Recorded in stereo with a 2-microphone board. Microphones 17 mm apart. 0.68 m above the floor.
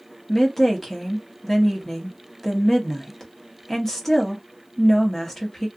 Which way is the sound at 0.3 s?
25° left (ahead or behind).